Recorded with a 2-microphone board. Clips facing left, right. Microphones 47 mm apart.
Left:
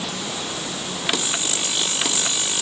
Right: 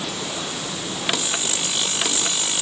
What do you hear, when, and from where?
Only background noise.